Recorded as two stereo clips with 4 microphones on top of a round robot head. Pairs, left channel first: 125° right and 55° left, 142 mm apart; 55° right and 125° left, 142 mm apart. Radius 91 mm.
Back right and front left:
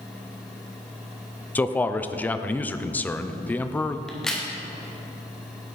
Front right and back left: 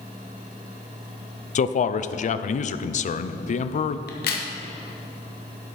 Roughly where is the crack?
Ahead right.